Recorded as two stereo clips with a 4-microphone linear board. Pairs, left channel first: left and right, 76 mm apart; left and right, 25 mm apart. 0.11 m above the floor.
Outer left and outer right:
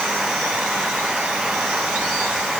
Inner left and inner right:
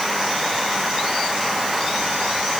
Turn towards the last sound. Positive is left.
No sound to turn to.